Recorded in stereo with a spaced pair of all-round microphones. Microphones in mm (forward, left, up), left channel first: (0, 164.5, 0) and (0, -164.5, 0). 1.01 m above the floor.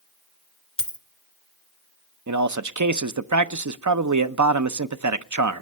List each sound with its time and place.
0.8 s a dropped coin: 40° left (ahead or behind), 1.5 m
2.3 s a man speaking: 65° right (ahead or behind), 0.7 m